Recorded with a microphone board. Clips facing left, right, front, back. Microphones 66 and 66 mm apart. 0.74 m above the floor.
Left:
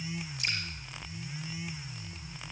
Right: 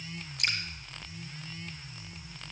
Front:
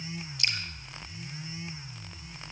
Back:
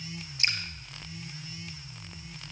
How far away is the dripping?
About 2.5 m.